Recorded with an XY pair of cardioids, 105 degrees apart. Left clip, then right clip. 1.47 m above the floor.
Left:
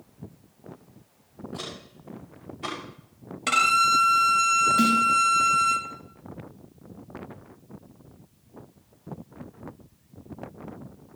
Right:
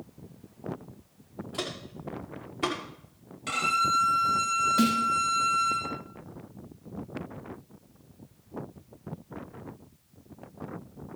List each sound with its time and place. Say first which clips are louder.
1.5 s footsteps: right 3 dB; 65° right, 5.5 m; by 2.8 s 70° right, 6 m
3.5 s a violin: left 6 dB; 70° left, 1.5 m
4.8 s a snare drum: left 4 dB; 10° right, 5 m